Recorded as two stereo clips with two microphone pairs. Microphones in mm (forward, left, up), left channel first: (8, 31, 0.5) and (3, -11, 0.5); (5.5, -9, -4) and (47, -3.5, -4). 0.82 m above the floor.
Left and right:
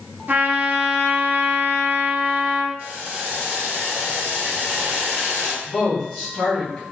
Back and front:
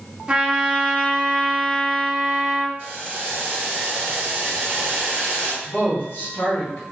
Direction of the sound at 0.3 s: 55° right.